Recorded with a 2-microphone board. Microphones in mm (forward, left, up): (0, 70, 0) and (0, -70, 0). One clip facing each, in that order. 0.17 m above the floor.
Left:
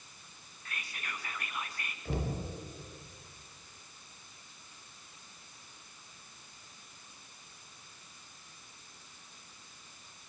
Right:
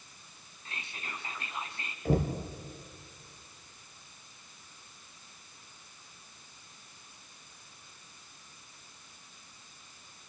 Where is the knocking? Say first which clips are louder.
Right 7 dB; 45° right (ahead or behind), 3 m.